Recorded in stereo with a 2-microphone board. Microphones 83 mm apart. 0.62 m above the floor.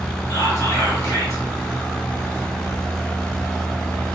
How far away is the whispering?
About 1.0 m.